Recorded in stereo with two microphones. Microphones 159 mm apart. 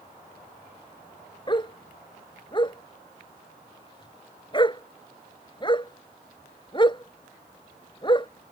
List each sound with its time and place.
1.5 s a dog barking: 30° left (ahead or behind)